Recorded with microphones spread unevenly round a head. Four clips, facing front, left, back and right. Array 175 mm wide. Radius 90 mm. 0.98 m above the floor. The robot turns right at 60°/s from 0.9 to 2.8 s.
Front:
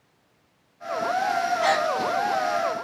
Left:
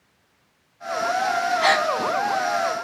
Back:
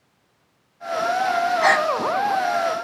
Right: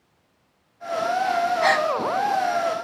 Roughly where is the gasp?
Behind.